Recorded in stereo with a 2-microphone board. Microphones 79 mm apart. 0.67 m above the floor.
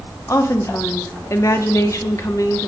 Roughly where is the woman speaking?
Left.